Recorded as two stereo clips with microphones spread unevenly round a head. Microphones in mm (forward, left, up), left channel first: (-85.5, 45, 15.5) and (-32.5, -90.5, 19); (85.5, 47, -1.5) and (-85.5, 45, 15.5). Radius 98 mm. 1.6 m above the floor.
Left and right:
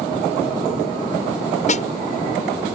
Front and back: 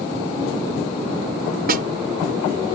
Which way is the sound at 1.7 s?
150° left.